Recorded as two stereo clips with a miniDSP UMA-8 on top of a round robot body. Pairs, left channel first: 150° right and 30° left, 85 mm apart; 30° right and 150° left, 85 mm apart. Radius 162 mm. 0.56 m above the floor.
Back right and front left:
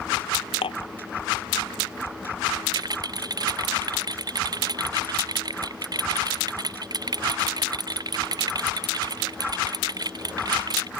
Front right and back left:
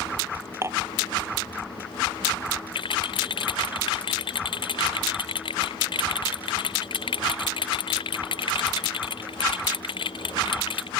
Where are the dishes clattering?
150° right.